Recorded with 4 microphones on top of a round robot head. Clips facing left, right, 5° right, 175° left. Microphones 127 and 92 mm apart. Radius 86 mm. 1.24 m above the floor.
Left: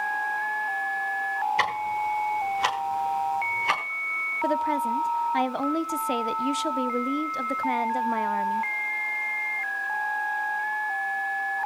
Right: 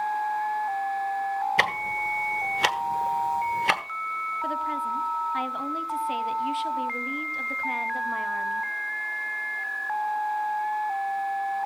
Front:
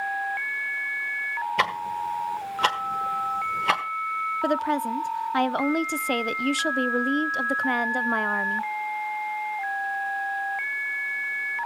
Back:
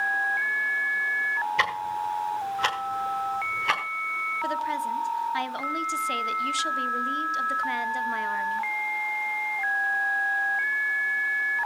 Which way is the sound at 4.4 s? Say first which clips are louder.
Left 7 dB, front 4 dB; 40° left.